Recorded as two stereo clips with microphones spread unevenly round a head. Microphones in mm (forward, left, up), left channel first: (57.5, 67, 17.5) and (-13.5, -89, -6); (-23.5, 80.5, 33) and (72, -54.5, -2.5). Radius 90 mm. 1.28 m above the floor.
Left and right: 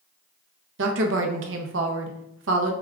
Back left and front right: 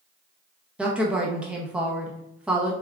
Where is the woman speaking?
140° right, 0.7 m.